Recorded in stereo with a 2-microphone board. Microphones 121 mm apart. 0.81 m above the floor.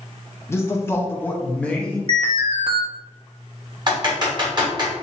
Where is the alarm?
55° right (ahead or behind), 0.6 m.